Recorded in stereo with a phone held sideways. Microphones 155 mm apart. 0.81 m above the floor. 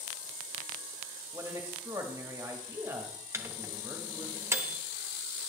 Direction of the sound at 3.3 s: 20° right (ahead or behind).